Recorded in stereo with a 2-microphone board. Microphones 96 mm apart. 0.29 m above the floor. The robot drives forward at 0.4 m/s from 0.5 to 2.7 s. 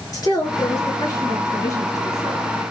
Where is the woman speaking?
40° left (ahead or behind), 4 m; by 2.6 s 35° left (ahead or behind), 4.5 m.